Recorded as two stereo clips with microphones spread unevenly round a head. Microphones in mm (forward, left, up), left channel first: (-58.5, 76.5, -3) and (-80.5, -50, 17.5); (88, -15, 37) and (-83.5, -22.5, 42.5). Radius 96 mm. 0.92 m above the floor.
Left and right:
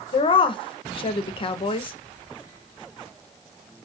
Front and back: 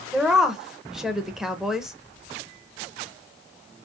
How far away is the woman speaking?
About 0.7 m.